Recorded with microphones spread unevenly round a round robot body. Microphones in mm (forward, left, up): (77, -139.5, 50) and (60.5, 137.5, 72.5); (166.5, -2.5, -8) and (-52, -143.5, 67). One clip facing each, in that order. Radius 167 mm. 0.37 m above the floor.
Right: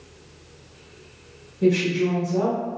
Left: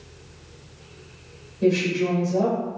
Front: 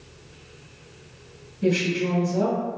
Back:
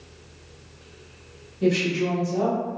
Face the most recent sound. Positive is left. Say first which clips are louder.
# right 1 dB, back 1 dB
turn(degrees=-160)